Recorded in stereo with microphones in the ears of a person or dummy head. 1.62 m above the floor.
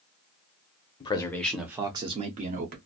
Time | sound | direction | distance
1.0 | a man speaking | 20° left (ahead or behind) | 0.7 m